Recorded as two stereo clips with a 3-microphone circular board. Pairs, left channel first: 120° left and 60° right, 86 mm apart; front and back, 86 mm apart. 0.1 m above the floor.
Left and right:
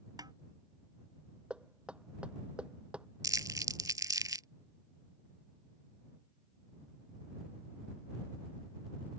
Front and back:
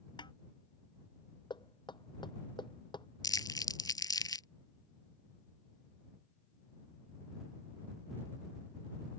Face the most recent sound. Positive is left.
turn(degrees=-25)